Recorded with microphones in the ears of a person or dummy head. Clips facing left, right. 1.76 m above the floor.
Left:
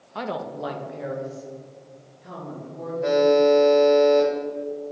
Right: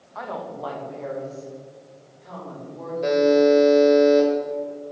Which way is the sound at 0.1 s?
45° left (ahead or behind).